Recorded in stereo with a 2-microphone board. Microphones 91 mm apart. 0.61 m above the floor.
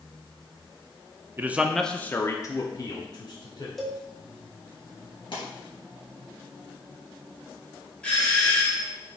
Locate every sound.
1.4 s a man speaking: 25° right (ahead or behind), 0.6 m; by 3.7 s 55° left (ahead or behind), 1.7 m
3.8 s a cowbell: 5° left (ahead or behind), 1.1 m
5.3 s a pop: 60° left (ahead or behind), 3 m
8.0 s a doorbell: 15° left (ahead or behind), 1.6 m